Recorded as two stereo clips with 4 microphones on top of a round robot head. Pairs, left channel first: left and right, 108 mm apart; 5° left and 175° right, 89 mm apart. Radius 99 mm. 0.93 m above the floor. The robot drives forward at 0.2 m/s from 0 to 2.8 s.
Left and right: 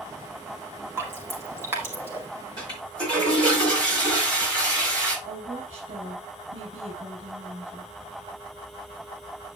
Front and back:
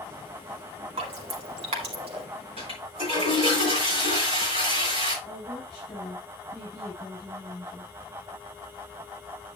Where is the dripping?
160° right, 2 m.